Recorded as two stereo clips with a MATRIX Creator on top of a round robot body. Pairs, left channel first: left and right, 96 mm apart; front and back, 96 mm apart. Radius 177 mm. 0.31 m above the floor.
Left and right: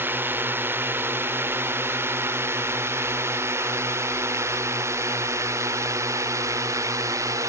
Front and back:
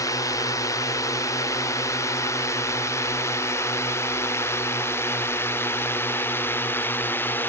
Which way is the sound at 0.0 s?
30° right.